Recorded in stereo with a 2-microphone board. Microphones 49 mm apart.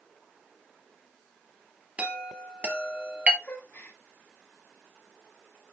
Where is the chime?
25° right (ahead or behind), 1.5 m.